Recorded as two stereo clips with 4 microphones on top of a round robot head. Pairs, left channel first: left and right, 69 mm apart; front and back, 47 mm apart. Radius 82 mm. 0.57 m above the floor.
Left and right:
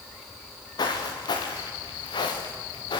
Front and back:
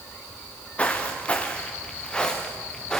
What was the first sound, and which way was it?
Footsteps, 65° left.